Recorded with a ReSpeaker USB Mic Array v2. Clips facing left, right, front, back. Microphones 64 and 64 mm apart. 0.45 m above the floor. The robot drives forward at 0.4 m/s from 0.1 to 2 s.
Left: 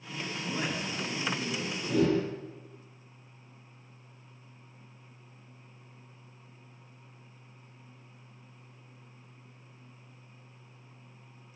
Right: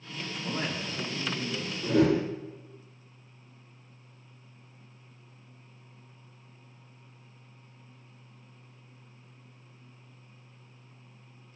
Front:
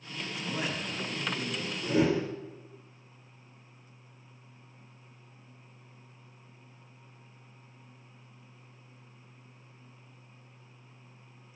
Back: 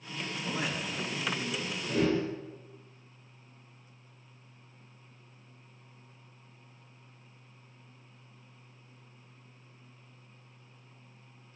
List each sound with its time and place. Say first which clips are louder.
0.4 s a man speaking: right 1 dB, even; 125° right, 1.2 m; by 1.7 s 145° right, 1.5 m
1.8 s a whoosh: right 3 dB, front 2 dB; 70° right, 0.6 m; by 2.3 s 75° right, 0.6 m